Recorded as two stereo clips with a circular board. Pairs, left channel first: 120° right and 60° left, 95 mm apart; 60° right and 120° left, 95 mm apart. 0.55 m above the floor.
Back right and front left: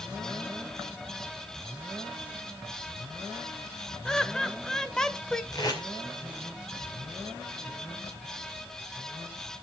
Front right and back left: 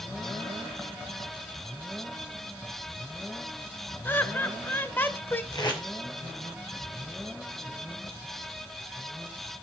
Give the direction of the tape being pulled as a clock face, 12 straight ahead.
3 o'clock.